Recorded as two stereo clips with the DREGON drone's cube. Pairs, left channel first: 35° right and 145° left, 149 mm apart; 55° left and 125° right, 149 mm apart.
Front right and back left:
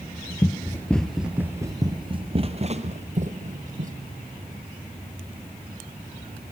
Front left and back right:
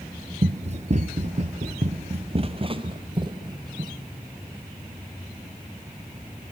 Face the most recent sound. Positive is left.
turn(degrees=175)